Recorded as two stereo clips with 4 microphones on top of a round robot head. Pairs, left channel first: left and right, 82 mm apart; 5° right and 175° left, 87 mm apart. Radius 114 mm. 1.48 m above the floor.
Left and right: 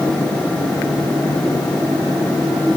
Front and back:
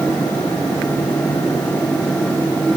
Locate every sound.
Only background noise.